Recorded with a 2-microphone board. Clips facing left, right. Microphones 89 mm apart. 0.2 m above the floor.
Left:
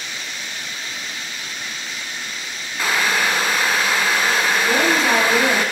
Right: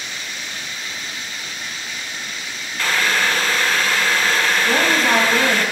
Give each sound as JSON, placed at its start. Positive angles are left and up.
{"t": 2.8, "sound": "boiling", "side_deg": 15, "distance_m": 0.6}
{"t": 4.7, "sound": "a woman speaking", "side_deg": -5, "distance_m": 1.2}